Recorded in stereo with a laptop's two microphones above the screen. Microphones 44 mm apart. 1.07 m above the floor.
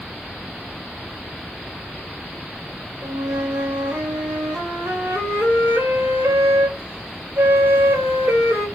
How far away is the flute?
About 1.3 m.